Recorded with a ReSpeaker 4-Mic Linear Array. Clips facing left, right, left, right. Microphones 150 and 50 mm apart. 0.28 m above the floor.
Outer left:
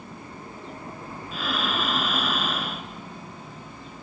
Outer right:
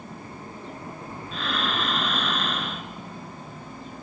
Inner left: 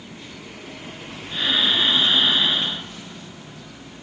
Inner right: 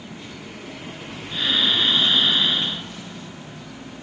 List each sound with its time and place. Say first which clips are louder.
1.3 s breathing: even, even; 5° left (ahead or behind), 0.9 m